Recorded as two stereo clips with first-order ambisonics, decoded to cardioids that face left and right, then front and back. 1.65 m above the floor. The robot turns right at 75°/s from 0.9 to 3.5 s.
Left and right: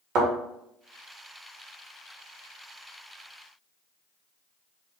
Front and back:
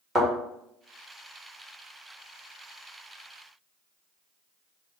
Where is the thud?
105° right, 1.8 m.